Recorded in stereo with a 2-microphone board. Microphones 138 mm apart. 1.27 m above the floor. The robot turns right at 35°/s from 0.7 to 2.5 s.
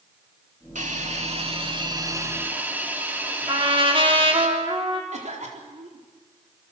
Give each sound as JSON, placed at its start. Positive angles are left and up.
{"t": 0.8, "sound": "a hiss", "azimuth_deg": -75, "distance_m": 2.5}
{"t": 3.5, "sound": "a trumpet", "side_deg": -40, "distance_m": 3.0}
{"t": 5.1, "sound": "a cough", "side_deg": -65, "distance_m": 3.5}